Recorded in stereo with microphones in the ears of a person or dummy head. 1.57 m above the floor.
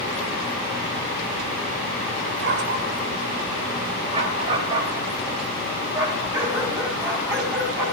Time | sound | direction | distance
2.2 | a dog barking | 60° right (ahead or behind) | 2 m